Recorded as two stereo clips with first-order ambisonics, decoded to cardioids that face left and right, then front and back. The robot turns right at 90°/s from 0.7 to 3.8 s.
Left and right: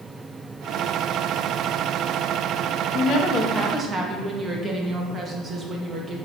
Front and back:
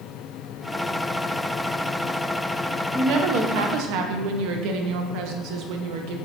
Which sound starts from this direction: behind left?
A woman speaking, at 2.9 s.